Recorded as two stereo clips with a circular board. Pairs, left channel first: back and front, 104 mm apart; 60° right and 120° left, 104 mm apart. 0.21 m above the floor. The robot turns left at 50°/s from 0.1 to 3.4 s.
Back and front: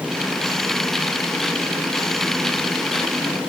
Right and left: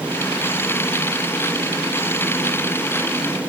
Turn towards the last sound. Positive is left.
No sound to turn to.